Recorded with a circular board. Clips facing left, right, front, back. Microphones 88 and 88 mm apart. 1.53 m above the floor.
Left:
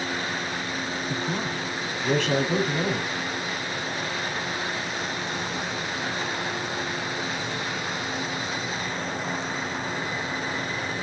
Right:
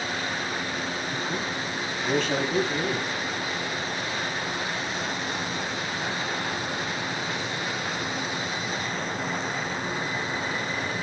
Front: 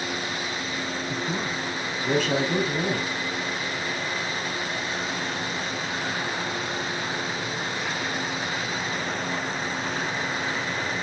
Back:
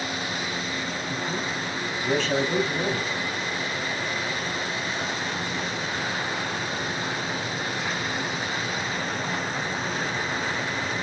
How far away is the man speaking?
About 5.5 m.